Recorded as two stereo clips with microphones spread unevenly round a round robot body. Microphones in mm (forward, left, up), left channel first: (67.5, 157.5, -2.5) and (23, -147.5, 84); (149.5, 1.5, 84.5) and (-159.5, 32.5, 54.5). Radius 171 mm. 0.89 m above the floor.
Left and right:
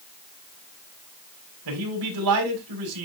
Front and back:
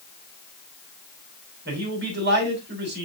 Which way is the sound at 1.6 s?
130° right.